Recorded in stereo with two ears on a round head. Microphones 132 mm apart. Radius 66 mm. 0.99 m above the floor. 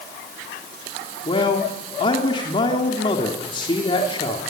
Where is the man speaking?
35° left (ahead or behind), 3 m.